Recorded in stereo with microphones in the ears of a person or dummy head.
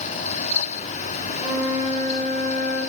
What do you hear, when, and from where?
1.4 s a flute: 40° right (ahead or behind), 4 m